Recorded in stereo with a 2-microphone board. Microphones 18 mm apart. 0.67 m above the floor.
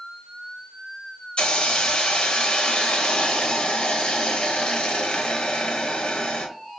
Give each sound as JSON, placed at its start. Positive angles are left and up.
{"t": 1.4, "sound": "a hiss", "side_deg": 75, "distance_m": 0.8}